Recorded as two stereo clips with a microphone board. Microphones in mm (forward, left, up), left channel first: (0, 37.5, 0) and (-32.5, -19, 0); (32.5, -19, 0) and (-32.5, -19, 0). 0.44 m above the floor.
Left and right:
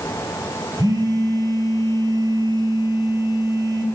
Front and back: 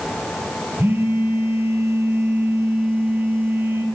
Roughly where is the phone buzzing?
Behind right.